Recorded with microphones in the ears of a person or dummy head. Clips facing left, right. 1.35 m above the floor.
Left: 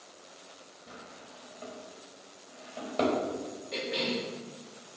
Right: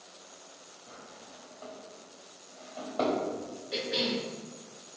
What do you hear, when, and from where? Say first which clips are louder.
0.9 s a drawer: left 1 dB; 35° left (ahead or behind), 4 m
3.7 s a cough: right 1 dB; 5° right (ahead or behind), 2.5 m